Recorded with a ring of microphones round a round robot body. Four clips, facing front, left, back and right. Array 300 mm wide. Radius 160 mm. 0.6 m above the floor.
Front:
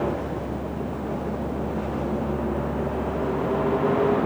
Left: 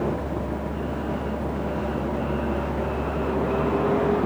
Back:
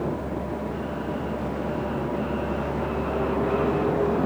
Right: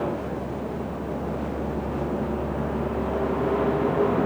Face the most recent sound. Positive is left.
No sound to turn to.